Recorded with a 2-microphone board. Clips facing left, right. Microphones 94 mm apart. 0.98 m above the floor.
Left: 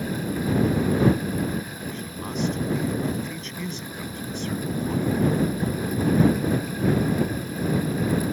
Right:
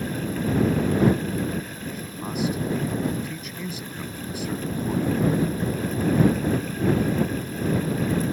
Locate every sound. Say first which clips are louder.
1.9 s a man speaking: even; 5° right (ahead or behind)